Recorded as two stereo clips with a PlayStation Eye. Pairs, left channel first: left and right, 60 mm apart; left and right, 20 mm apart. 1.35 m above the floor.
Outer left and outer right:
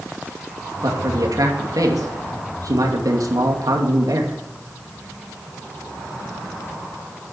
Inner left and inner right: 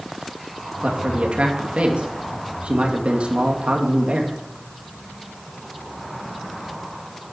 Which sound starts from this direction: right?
A man speaking, at 0.8 s.